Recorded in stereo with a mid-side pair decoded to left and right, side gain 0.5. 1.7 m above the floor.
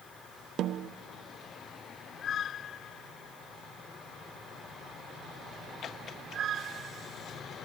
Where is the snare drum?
60° right, 0.7 m.